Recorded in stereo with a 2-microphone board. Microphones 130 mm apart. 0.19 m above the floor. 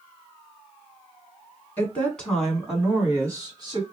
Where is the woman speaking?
15° left (ahead or behind), 1.9 m; by 3.8 s 35° right (ahead or behind), 1.5 m.